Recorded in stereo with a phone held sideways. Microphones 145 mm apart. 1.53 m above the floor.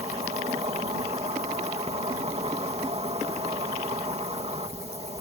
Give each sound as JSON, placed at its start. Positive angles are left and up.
{"t": 0.0, "sound": "an insect", "side_deg": -45}